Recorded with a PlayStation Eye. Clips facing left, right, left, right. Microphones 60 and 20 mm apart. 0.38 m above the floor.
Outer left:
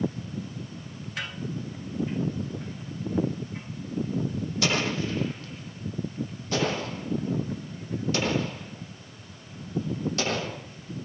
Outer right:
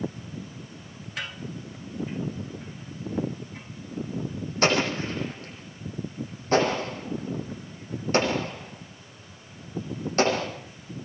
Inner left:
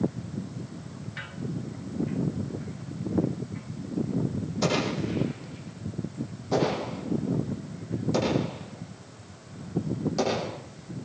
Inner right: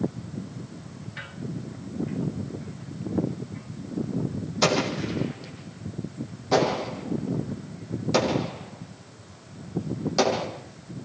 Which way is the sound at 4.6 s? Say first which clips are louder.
Outer right 4 dB, inner right 4 dB; 40° right (ahead or behind).